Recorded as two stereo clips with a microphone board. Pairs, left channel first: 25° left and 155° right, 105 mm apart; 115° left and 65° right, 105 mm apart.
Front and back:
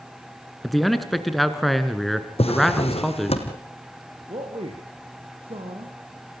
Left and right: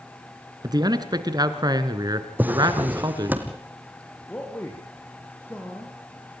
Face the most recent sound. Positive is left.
turn(degrees=180)